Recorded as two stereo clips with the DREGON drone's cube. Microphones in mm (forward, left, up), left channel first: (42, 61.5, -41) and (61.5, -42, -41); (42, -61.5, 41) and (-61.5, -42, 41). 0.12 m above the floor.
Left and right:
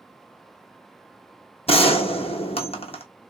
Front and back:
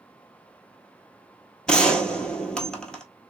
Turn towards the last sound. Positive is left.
turn(degrees=70)